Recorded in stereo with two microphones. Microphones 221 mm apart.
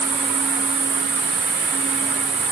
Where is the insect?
65° right (ahead or behind), 2.5 m.